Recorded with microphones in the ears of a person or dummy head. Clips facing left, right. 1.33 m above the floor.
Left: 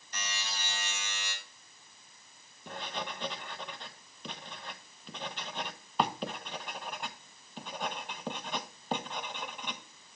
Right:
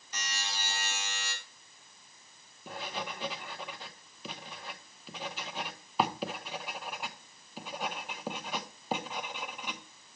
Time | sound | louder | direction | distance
0.1 | a buzzer | right 1 dB | 80° right | 3.5 m
2.7 | writing | even | 5° right (ahead or behind) | 0.8 m